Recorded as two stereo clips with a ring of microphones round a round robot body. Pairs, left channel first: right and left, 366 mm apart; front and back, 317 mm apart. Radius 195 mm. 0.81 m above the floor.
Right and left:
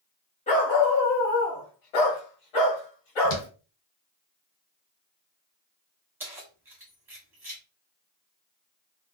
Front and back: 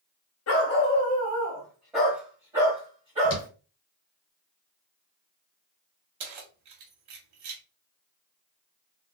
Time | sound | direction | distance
0.5 | a dog barking | 25° right | 0.6 m
3.2 | footsteps | 40° right | 1.4 m
6.2 | keys jangling | 175° left | 0.9 m